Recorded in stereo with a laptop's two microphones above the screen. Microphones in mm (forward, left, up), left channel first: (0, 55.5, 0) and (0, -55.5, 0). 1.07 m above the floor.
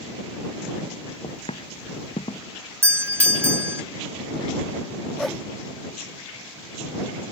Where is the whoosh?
Centre (ahead or behind).